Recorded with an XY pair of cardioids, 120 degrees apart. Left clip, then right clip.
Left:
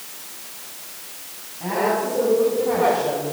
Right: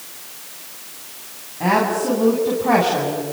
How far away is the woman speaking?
About 8 m.